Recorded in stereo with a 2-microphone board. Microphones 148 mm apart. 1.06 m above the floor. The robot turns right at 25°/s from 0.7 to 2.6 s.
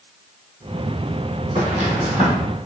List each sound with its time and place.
1.6 s footsteps: 45° right (ahead or behind), 1.7 m; by 2.3 s 50° right (ahead or behind), 1.7 m